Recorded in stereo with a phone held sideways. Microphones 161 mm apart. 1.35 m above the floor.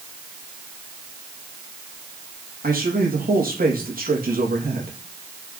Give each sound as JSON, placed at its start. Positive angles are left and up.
{"t": 2.6, "sound": "a man speaking", "side_deg": -65, "distance_m": 2.5}